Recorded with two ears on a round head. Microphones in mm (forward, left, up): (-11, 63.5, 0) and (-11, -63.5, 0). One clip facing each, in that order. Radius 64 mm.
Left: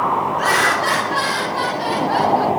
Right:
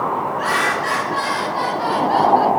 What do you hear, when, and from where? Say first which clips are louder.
0.4 s laughter: left 2 dB; 45° left (ahead or behind), 1.6 m; by 2.5 s 10° left (ahead or behind), 1.7 m